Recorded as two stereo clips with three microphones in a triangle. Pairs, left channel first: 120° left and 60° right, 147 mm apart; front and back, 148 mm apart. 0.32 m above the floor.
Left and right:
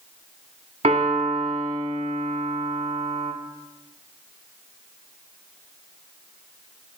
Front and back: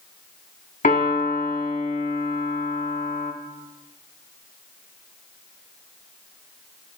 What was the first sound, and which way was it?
A piano, 20° right.